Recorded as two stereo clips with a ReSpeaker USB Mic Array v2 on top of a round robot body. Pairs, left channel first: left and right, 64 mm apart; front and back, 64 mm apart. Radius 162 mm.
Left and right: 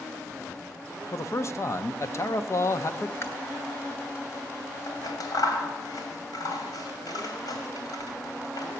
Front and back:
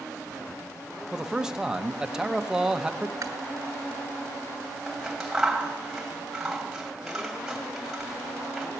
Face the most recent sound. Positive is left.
turn(degrees=95)